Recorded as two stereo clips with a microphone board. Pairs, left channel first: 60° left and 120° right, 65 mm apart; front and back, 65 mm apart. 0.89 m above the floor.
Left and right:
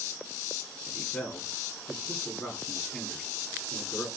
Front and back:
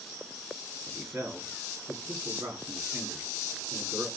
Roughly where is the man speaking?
Behind left.